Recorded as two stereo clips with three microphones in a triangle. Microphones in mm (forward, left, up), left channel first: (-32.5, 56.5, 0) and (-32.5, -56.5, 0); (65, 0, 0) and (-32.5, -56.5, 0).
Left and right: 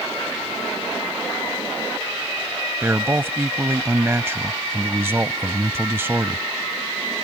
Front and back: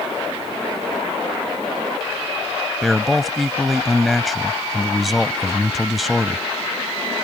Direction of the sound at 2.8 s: 60° right.